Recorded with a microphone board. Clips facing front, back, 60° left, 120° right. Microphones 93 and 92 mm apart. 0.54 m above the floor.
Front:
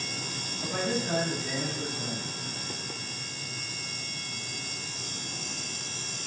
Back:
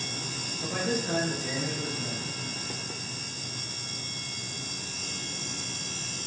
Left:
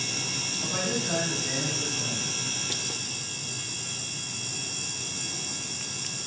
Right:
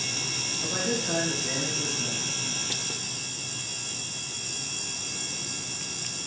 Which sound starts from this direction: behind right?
A man speaking, at 0.6 s.